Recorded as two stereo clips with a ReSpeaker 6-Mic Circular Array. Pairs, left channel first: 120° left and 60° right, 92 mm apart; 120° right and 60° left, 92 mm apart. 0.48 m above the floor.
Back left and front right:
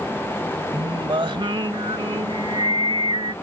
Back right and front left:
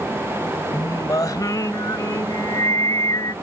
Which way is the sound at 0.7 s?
75° right.